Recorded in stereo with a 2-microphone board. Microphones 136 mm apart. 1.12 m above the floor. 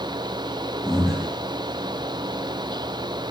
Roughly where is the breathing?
Centre.